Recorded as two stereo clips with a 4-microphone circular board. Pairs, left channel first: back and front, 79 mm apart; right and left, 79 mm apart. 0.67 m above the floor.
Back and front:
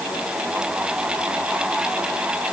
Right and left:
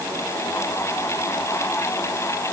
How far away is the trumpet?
No trumpet in this recording.